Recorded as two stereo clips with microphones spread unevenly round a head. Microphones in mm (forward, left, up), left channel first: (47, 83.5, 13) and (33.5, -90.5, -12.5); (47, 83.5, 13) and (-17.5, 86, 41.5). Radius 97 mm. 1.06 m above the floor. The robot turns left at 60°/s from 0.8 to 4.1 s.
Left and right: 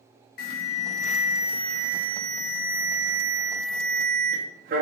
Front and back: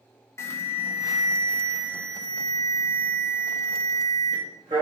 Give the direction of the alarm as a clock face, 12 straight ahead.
10 o'clock.